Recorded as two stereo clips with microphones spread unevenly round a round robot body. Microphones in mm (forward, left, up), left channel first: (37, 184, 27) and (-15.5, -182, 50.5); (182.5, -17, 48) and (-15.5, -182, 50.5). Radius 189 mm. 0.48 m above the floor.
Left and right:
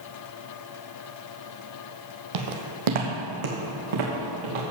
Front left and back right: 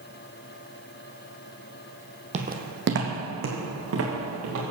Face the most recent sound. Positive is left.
turn(degrees=-110)